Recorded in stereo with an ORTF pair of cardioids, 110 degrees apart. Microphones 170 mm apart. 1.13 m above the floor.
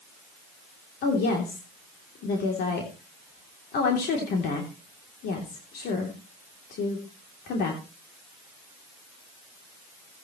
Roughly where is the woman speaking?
Left.